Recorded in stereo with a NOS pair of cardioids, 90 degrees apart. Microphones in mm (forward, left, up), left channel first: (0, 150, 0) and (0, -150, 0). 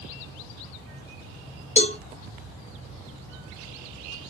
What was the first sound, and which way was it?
A cowbell, 20° left.